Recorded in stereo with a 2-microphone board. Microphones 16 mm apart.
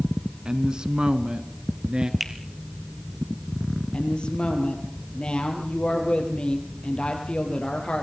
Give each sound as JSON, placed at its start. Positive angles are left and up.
{"t": 0.5, "sound": "a woman speaking", "side_deg": -45, "distance_m": 1.8}
{"t": 2.2, "sound": "a finger snap", "side_deg": -10, "distance_m": 3.0}
{"t": 3.9, "sound": "a woman speaking", "side_deg": 70, "distance_m": 5.5}